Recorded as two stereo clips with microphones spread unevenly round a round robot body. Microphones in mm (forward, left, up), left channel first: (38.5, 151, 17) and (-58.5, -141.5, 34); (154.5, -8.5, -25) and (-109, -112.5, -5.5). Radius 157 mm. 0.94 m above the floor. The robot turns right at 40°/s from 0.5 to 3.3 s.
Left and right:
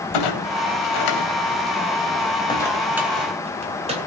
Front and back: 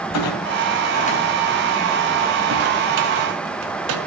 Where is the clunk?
70° left, 3 m; by 4.0 s straight behind, 3 m.